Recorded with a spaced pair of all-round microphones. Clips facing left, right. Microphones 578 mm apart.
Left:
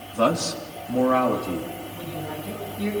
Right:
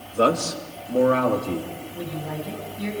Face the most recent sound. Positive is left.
turn(degrees=30)  # may be behind; listen again after turning